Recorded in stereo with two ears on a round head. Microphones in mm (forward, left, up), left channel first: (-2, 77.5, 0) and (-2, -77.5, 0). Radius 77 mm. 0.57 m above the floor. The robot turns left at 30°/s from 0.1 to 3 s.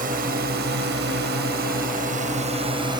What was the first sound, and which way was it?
A drone, 50° right (ahead or behind).